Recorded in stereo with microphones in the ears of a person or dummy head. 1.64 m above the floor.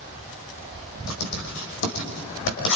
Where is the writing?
70° left (ahead or behind), 5.5 m.